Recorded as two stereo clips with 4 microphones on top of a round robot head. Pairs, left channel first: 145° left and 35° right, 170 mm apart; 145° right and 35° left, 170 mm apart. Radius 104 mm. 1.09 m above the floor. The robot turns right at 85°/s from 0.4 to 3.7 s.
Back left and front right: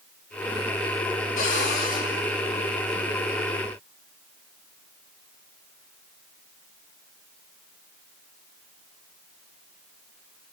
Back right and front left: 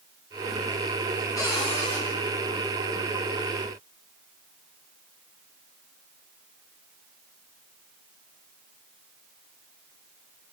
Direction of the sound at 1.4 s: 145° left.